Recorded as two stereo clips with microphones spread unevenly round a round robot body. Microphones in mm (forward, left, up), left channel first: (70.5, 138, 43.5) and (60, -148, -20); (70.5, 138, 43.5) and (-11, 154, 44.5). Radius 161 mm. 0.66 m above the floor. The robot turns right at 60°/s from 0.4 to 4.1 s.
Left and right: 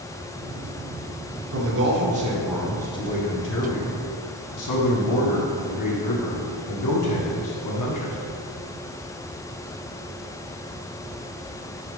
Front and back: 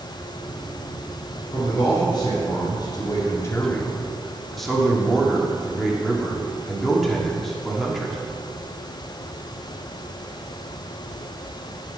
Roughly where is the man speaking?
Right.